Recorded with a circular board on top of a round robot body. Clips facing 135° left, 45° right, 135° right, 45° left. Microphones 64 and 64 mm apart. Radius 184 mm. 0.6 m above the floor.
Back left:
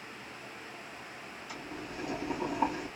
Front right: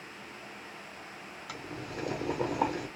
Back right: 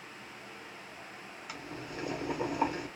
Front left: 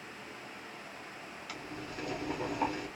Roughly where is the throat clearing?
I don't hear throat clearing.